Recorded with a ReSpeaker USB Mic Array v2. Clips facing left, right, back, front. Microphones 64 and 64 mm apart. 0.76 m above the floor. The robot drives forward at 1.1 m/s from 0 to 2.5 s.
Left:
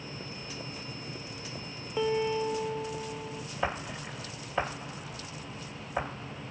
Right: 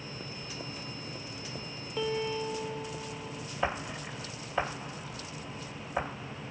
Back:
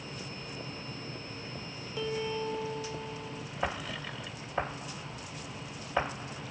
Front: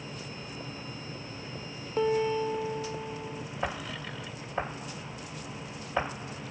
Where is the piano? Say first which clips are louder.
Left 4 dB, front 7 dB; 20° left; by 3.4 s 50° left.